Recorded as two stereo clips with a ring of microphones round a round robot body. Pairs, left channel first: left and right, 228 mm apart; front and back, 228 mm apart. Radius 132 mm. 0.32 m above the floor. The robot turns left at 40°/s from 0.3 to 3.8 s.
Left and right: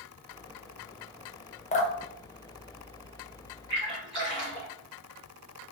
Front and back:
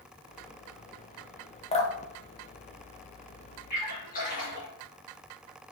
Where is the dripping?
50° left, 0.9 m; by 3.5 s 20° right, 0.9 m.